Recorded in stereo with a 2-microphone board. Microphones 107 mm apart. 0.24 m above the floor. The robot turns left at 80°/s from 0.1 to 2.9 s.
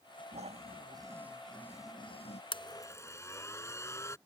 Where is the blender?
60° left; by 4.2 s 30° left.